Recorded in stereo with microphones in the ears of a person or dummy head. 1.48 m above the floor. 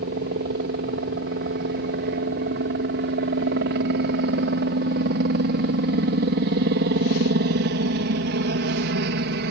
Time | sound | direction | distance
0.0 | a helicopter | 60° right (ahead or behind) | ?